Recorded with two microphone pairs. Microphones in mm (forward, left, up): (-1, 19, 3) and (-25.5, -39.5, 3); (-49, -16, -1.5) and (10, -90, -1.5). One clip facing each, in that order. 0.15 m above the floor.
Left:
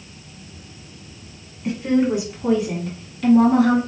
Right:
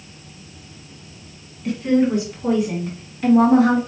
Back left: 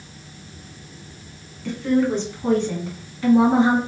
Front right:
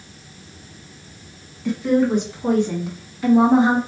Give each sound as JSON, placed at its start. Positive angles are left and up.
{"t": 1.6, "sound": "a woman speaking", "azimuth_deg": 20, "distance_m": 1.6}